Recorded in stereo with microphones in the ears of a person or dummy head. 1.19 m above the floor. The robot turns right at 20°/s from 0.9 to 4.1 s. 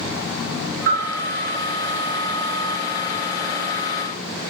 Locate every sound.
0.9 s a bell: 45° right (ahead or behind), 0.8 m; by 1.1 s 40° right (ahead or behind), 0.8 m